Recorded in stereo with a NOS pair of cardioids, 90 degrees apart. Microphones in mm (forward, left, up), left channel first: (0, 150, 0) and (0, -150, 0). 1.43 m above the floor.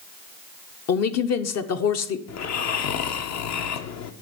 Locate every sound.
0.9 s a woman speaking: 60° left, 0.9 m
2.3 s snoring: 60° left, 0.8 m